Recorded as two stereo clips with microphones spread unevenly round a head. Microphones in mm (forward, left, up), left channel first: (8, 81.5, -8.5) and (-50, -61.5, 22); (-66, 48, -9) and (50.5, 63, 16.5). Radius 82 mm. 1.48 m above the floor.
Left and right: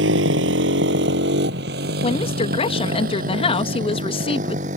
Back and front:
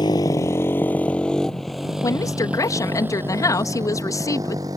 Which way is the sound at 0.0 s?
105° right.